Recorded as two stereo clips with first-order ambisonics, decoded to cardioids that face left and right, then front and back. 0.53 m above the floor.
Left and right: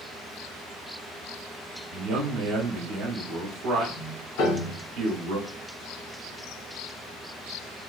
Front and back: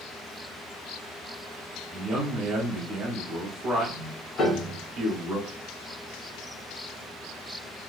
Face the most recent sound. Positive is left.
turn(degrees=70)